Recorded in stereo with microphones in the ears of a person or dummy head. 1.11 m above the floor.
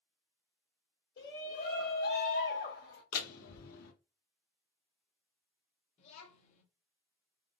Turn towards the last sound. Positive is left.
turn(degrees=50)  # may be behind; listen again after turning